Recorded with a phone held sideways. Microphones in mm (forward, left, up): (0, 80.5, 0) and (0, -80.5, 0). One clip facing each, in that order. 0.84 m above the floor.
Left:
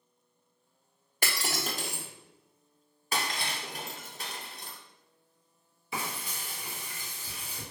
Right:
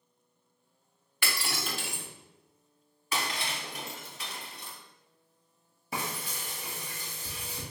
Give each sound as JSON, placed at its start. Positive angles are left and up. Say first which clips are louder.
{"t": 1.2, "sound": "breaking glass", "louder": "left 2 dB", "side_deg": 40, "distance_m": 0.7}
{"t": 3.1, "sound": "breaking glass", "louder": "even", "side_deg": 45, "distance_m": 0.9}
{"t": 5.9, "sound": "frying", "louder": "right 1 dB", "side_deg": -45, "distance_m": 1.8}